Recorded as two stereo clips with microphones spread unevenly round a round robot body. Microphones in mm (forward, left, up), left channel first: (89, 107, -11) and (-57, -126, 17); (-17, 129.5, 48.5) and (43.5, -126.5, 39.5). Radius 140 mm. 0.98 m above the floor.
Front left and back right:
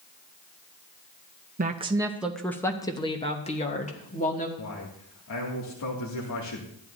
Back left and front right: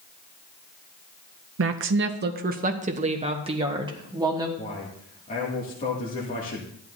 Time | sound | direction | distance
1.6 | a woman speaking | 65° right | 0.7 m
4.6 | a man speaking | 45° left | 2.5 m